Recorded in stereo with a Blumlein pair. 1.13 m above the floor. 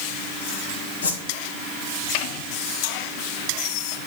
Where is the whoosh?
70° left, 1.7 m.